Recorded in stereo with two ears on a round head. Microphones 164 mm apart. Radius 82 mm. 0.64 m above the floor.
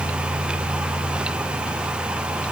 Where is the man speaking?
I don't hear a man speaking.